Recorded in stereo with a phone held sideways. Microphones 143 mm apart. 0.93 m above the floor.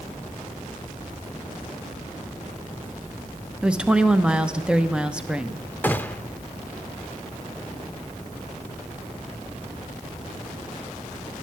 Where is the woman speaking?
5° right (ahead or behind), 0.8 m.